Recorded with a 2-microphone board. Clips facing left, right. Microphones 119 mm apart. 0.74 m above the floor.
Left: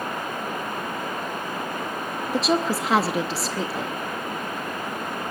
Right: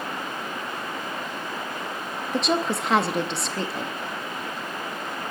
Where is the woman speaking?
5° left (ahead or behind), 0.7 m.